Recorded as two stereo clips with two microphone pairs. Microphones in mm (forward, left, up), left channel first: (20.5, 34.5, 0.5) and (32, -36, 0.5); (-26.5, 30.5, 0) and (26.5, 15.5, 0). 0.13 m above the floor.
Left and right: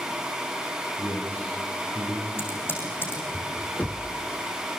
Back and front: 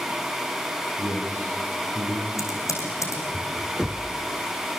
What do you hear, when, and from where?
1.0 s a man speaking: 25° right, 5 m; by 2.3 s 20° right, 5 m
2.4 s typing on a keyboard: 160° left, 6 m
3.8 s knocking: 60° left, 1.3 m